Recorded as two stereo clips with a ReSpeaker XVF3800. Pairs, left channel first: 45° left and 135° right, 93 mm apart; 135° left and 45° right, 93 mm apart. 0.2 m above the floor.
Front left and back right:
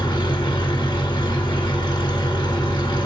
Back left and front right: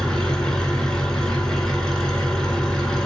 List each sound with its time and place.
0.0 s an engine running: 55° left, 1.6 m